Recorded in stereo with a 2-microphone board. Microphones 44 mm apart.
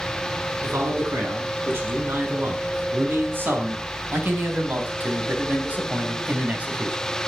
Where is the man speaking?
65° right (ahead or behind), 5.5 m; by 7.0 s 30° right (ahead or behind), 2.5 m.